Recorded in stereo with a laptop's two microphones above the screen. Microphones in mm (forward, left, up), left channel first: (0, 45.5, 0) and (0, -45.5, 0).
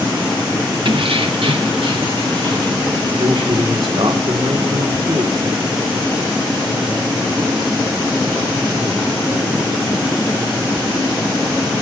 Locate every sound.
0.8 s keys jangling: 65° right (ahead or behind), 1.1 m
3.2 s a man speaking: 65° right (ahead or behind), 2.5 m